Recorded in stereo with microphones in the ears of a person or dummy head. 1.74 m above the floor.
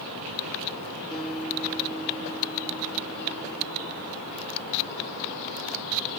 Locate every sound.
1.1 s a guitar: centre (ahead or behind), 1.6 m